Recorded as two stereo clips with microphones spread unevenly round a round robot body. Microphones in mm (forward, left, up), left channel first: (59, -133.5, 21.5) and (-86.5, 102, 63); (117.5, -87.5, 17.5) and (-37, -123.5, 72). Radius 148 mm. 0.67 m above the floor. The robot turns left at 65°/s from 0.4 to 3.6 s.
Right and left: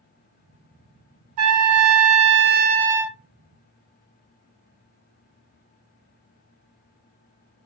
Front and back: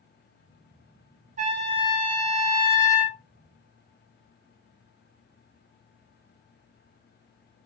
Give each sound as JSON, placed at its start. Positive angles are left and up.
{"t": 1.4, "sound": "a trumpet", "azimuth_deg": 145, "distance_m": 0.5}